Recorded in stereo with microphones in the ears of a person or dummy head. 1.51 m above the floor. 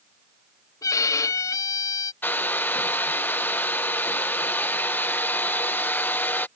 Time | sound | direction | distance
0.8 | a violin | 20° left (ahead or behind) | ?
2.2 | a hair dryer | 5° left (ahead or behind) | ?